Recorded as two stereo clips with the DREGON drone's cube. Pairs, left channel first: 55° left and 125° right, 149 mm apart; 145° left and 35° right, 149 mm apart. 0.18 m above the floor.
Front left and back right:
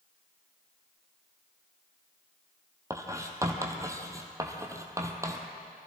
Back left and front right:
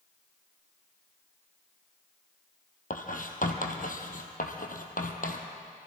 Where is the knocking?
No knocking in this recording.